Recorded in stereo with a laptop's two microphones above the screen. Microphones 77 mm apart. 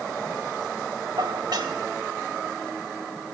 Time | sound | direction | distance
1.2 | dishes clattering | 75° right (ahead or behind) | 2.5 m